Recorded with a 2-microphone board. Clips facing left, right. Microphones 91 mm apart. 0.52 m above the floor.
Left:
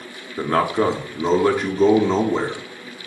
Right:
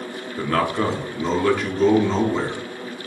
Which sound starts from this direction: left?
A man speaking, at 0.4 s.